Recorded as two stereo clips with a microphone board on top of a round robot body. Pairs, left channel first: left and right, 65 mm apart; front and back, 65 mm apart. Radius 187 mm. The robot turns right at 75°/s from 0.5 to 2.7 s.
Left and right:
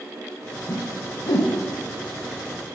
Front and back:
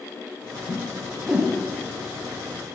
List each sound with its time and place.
0.7 s a whoosh: 55° left, 0.6 m; by 1.6 s 120° left, 0.6 m